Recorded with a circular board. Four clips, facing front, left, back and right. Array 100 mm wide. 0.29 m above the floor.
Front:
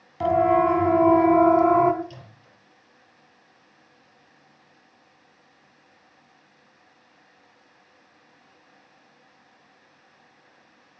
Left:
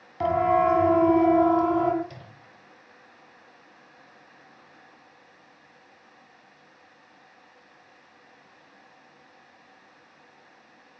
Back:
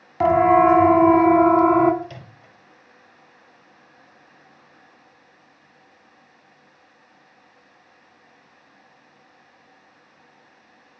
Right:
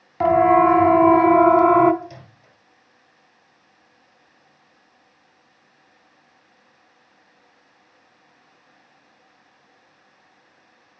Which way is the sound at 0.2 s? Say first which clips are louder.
Right 7 dB, back 5 dB; 145° right.